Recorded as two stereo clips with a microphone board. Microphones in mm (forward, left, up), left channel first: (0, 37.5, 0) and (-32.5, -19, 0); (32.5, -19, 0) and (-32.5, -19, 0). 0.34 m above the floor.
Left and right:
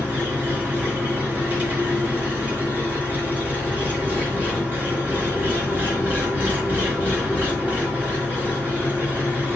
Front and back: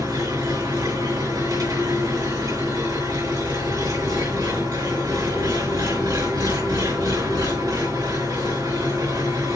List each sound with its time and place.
0.0 s an engine running: straight behind, 4 m